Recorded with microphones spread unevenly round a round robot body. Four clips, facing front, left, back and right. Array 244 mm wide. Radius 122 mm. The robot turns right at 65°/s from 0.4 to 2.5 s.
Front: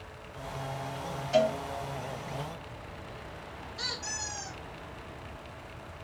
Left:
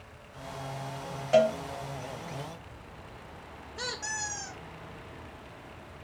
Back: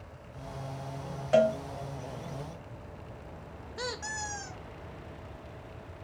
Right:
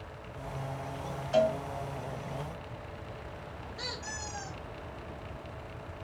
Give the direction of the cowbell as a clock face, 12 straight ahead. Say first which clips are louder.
Left 4 dB, back 2 dB; 7 o'clock.